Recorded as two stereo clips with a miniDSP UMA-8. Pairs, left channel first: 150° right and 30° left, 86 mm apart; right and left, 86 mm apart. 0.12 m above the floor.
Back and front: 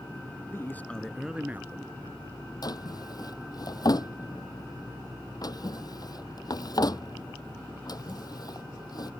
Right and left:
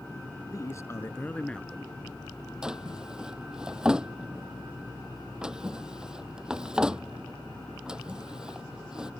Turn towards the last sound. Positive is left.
turn(degrees=170)